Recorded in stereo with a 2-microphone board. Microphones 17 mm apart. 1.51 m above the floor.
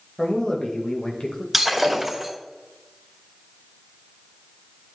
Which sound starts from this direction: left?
A man speaking, at 0.2 s.